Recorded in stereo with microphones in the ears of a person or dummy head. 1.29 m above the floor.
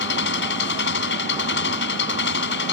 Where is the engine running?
70° left (ahead or behind).